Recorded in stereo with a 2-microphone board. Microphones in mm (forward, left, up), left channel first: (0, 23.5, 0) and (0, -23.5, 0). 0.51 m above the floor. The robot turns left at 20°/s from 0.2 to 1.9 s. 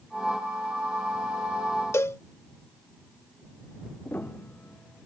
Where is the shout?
I don't hear a shout.